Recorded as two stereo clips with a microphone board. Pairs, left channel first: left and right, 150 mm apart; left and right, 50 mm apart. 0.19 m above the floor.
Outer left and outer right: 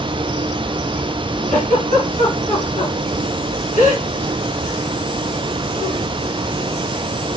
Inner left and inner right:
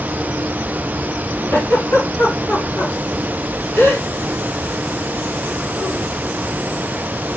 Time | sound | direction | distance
1.5 | a giggle | 75° left (ahead or behind) | 4 m